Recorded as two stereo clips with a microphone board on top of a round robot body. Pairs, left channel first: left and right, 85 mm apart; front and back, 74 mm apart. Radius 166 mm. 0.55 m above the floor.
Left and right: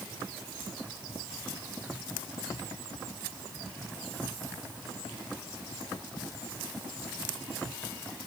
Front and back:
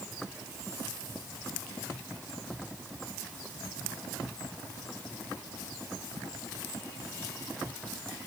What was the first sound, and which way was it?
Only background noise.